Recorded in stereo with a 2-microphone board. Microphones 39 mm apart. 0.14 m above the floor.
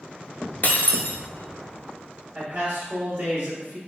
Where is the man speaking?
45° right (ahead or behind), 2.0 m.